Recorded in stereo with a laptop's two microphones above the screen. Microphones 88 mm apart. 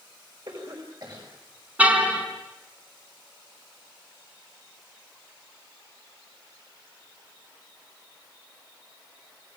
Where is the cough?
50° right (ahead or behind), 6.5 m.